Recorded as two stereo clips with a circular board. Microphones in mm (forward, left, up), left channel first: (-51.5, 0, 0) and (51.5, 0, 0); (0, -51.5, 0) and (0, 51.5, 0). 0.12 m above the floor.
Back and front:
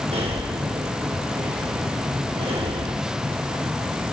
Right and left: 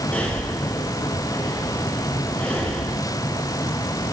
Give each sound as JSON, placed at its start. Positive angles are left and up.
{"t": 0.1, "sound": "breathing", "azimuth_deg": -15, "distance_m": 3.5}